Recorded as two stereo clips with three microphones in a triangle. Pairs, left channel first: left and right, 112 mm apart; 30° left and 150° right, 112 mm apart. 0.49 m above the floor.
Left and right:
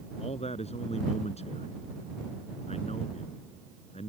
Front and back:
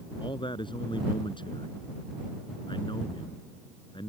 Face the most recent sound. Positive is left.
turn(degrees=75)